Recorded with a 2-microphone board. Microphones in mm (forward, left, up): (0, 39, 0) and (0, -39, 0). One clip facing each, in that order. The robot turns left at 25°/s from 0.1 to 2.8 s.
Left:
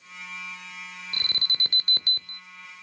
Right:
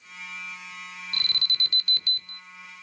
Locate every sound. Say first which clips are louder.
1.1 s an alarm: even; 30° left (ahead or behind), 0.7 m; by 2.4 s 50° left (ahead or behind), 0.7 m